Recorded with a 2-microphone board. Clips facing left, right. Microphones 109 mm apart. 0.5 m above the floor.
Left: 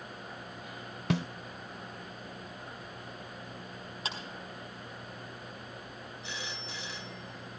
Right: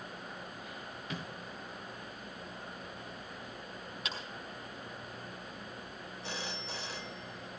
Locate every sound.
1.1 s a snare drum: 75° left (ahead or behind), 0.6 m
4.0 s a clap: 30° left (ahead or behind), 4 m
6.2 s a phone ringing: 45° right (ahead or behind), 1.7 m